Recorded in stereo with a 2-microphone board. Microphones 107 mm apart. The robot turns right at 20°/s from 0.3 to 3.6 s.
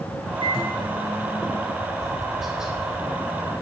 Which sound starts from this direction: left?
A microwave, at 0.4 s.